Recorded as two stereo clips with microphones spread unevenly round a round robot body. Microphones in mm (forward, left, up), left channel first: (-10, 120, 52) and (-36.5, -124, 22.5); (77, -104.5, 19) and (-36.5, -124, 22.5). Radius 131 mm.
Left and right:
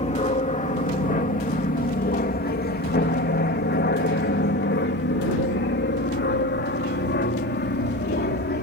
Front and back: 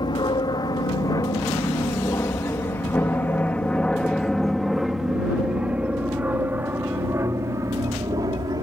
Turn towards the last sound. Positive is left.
turn(degrees=130)